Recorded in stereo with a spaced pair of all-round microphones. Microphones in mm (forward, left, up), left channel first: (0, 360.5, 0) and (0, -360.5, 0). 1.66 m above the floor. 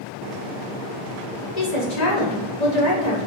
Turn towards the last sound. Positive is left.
turn(degrees=65)  # may be behind; listen again after turning